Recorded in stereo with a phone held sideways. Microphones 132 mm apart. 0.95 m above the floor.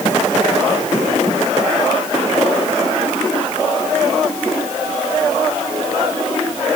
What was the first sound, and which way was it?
Only background noise.